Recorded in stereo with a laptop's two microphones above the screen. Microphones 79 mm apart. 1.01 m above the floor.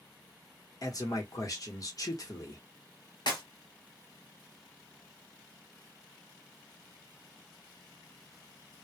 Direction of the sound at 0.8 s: 50° left (ahead or behind).